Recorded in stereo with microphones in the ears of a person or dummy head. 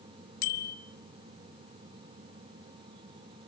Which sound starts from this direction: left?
A bicycle bell, at 0.4 s.